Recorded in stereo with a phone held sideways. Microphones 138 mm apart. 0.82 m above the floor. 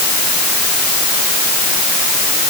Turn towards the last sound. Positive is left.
No sound to turn to.